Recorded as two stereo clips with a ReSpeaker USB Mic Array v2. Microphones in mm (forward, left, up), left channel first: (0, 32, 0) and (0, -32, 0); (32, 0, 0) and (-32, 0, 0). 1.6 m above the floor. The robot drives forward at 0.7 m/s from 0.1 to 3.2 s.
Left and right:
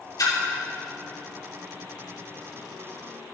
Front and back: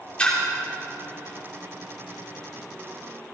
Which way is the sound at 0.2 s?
70° left.